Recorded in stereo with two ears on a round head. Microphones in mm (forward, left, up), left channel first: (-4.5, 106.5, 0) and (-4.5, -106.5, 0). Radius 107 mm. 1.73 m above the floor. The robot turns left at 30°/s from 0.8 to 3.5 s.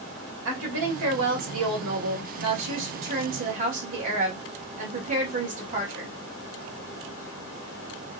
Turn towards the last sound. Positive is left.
turn(degrees=-145)